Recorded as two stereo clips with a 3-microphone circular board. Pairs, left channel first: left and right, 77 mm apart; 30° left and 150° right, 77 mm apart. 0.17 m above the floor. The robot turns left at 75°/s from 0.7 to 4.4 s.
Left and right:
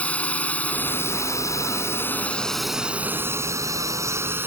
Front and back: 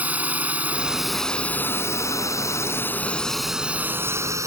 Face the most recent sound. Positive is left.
turn(degrees=-135)